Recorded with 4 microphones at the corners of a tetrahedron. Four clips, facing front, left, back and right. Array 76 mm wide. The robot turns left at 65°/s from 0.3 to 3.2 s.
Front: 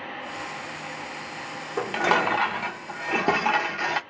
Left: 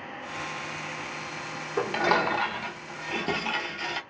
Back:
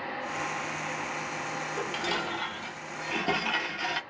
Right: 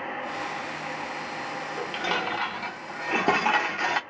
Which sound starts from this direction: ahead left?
Dishes clattering, at 1.8 s.